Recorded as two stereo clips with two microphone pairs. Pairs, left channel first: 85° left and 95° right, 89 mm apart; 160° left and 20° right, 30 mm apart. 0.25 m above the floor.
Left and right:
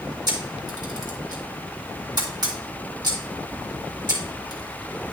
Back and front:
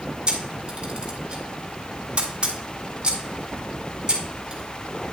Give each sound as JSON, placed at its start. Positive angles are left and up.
{"t": 0.3, "sound": "a camera shutter", "azimuth_deg": -70, "distance_m": 2.5}